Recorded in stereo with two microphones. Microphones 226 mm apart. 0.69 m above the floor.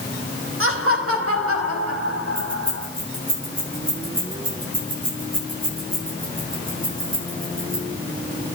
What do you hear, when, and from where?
0.6 s laughter: 70° right (ahead or behind), 4 m; by 2.9 s 75° right (ahead or behind), 6.5 m
2.4 s keys jangling: 40° right (ahead or behind), 8 m